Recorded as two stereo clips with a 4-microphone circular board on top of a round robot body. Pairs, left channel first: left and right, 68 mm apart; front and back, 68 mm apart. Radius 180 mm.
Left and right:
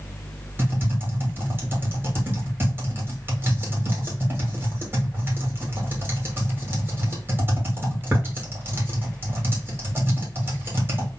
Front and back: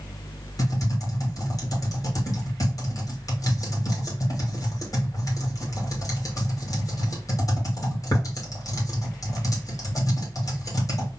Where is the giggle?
I don't hear a giggle.